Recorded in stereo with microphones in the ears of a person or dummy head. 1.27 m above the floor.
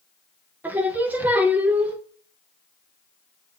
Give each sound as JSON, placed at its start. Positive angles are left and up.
{"t": 0.6, "sound": "singing", "side_deg": -10, "distance_m": 0.6}